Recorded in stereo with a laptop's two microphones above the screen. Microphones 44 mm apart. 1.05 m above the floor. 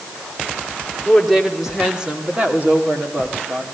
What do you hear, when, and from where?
1.1 s a woman speaking: 5° left (ahead or behind), 2.5 m; by 3.6 s 65° right (ahead or behind), 2.5 m